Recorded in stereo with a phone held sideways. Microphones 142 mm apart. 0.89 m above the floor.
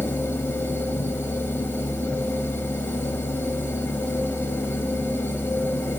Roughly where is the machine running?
Centre.